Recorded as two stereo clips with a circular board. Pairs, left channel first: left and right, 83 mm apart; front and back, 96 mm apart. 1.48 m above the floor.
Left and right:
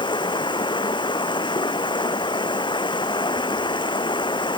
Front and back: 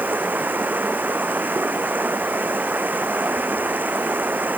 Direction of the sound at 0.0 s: 110° left.